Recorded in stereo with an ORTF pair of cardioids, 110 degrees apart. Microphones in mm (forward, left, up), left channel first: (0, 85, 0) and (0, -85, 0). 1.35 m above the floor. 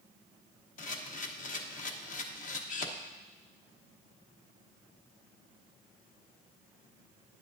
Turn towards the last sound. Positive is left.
turn(degrees=50)